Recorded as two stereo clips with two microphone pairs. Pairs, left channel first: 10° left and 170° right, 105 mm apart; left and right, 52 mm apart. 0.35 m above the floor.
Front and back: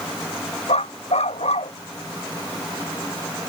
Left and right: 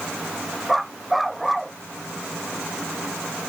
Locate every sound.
0.7 s a dog barking: straight ahead